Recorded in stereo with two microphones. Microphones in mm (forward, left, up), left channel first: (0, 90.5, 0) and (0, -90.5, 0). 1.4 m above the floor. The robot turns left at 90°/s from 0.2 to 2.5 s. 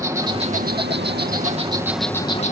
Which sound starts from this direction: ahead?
An insect, at 0.0 s.